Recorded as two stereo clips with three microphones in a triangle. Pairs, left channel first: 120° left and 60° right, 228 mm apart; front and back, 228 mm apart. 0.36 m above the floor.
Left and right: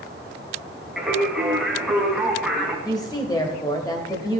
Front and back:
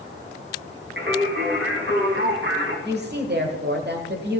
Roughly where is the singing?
Behind right.